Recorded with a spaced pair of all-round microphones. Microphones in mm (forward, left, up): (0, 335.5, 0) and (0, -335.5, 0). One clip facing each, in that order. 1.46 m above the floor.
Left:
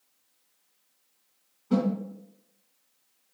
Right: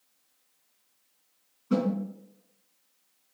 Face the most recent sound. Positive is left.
turn(degrees=30)  # may be behind; listen again after turning